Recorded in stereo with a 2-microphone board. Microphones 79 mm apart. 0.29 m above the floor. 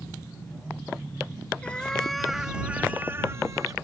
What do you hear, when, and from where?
1.6 s a cat meowing: 15° left (ahead or behind); by 3.7 s 45° right (ahead or behind)